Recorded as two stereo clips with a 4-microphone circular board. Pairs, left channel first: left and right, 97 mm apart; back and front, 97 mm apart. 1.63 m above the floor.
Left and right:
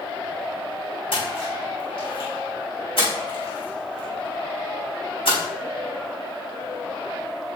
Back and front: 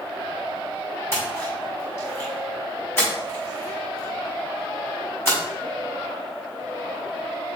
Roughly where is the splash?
Behind left.